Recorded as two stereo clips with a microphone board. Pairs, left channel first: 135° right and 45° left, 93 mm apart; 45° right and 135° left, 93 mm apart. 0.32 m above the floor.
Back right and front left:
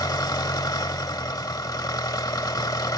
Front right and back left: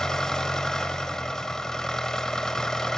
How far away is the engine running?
About 0.8 m.